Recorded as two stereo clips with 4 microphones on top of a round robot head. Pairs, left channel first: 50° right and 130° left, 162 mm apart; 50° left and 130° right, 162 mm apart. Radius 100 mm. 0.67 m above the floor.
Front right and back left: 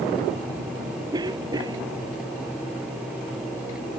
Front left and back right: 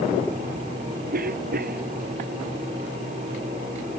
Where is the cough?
165° right.